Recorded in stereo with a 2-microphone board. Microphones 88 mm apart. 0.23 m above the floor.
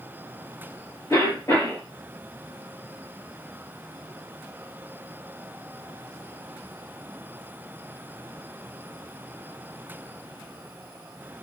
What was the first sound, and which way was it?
A cough, 30° left (ahead or behind).